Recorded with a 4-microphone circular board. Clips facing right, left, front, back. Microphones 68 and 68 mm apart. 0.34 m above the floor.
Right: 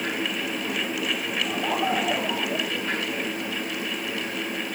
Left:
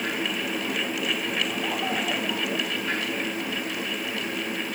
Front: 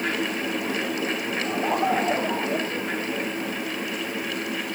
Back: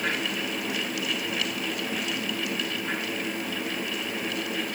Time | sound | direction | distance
1.4 | laughter | 20° right | ?